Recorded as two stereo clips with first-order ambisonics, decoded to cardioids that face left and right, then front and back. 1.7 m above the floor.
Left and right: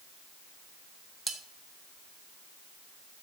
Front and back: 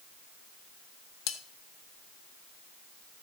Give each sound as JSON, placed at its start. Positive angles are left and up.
{"t": 1.3, "sound": "cutlery clinking", "azimuth_deg": -10, "distance_m": 1.4}